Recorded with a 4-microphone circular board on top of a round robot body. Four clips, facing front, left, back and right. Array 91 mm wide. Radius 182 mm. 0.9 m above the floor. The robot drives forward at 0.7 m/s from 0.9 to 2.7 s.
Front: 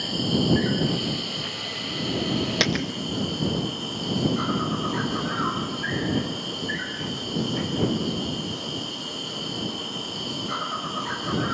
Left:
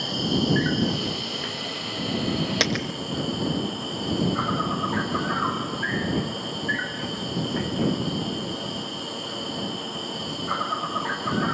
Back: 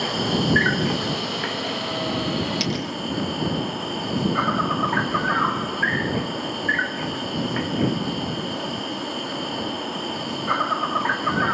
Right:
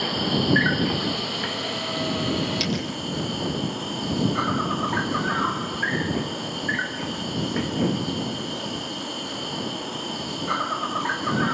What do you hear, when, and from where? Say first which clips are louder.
0.0 s an insect: right 1 dB, back 2 dB; 155° right, 1.2 m; by 11.5 s 170° right, 2.5 m
2.6 s a dropped coin: left 1 dB, front 1 dB; 50° left, 0.8 m; by 2.9 s 55° left, 0.8 m